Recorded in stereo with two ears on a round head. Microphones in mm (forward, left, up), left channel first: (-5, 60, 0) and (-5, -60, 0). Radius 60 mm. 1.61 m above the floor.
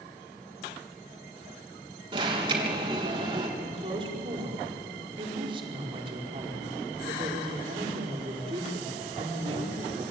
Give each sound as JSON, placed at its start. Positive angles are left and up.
{"t": 2.1, "sound": "an alarm", "side_deg": -35, "distance_m": 3.5}
{"t": 3.6, "sound": "a woman speaking", "side_deg": -40, "distance_m": 4.5}